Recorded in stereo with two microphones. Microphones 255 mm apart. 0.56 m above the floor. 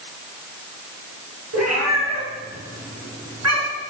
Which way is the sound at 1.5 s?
75° right (ahead or behind).